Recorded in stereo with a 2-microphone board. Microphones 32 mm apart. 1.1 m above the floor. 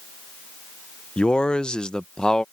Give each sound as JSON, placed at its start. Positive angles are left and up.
{"t": 1.2, "sound": "a man speaking", "side_deg": 30}